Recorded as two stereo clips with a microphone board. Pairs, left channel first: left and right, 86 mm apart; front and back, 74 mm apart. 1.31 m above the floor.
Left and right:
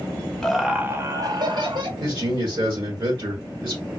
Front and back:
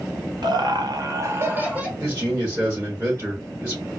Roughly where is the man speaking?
Behind right.